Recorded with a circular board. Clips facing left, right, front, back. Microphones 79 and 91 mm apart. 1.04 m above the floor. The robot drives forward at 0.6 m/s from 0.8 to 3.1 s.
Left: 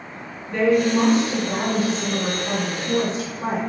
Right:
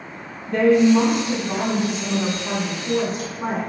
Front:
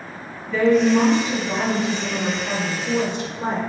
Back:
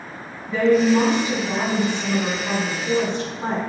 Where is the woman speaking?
95° right, 1.9 m; by 3.6 s 130° right, 2.5 m.